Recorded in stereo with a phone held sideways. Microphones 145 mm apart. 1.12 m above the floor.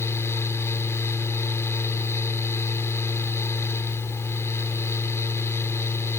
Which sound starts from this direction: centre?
A fan, at 0.0 s.